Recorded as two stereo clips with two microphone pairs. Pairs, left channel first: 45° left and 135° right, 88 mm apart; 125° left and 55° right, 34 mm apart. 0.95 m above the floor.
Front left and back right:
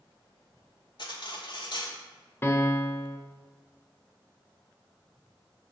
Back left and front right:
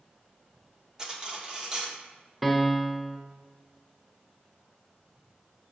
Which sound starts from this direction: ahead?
Cutlery clinking, at 1.0 s.